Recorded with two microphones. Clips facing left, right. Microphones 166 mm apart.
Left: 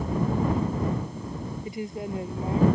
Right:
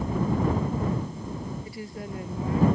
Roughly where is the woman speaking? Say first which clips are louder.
Left 4 dB; centre.